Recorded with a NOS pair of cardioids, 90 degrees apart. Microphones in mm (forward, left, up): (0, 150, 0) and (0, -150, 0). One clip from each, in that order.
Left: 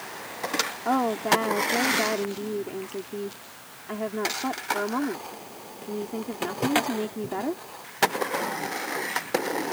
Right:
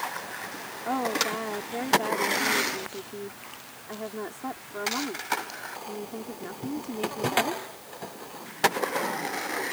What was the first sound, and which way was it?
A woman speaking, 35° left.